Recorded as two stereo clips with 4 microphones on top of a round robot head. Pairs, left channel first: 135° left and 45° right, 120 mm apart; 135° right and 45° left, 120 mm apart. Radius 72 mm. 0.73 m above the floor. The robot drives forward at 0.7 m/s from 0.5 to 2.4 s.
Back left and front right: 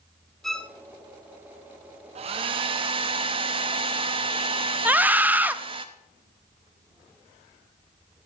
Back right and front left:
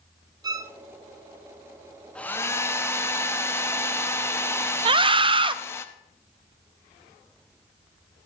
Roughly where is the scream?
Ahead left.